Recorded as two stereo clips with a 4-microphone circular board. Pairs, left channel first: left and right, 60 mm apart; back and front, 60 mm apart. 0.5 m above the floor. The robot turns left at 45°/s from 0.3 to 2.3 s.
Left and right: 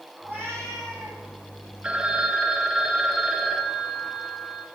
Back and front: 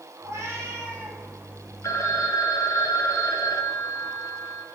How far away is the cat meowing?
About 8.5 m.